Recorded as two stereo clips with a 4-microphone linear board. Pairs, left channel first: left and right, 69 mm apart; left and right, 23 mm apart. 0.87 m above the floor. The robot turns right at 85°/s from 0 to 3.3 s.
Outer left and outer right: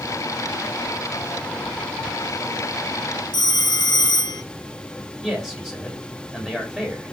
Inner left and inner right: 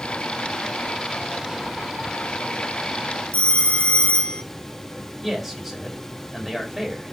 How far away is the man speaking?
About 4 m.